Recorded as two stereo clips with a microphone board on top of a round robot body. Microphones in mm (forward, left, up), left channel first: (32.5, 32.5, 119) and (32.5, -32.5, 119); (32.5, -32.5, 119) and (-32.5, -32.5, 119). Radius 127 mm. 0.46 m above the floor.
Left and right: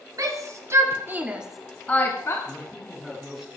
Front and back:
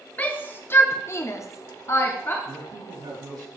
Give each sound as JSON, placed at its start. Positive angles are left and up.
{"t": 0.2, "sound": "a shout", "azimuth_deg": -60, "distance_m": 2.0}
{"t": 2.5, "sound": "a man speaking", "azimuth_deg": 180, "distance_m": 4.0}